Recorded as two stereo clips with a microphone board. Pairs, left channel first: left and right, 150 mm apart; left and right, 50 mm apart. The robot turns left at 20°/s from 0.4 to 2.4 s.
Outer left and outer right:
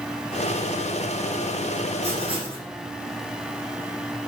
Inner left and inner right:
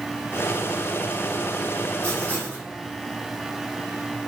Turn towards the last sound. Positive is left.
turn(degrees=-35)  # may be behind; listen again after turning